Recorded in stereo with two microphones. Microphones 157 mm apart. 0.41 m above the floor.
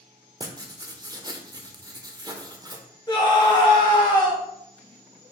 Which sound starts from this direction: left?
A scream, at 3.1 s.